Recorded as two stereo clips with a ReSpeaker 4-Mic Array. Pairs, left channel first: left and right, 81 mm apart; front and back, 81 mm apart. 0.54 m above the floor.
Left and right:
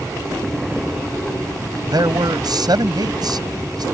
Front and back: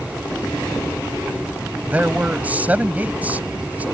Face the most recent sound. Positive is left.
turn(degrees=-110)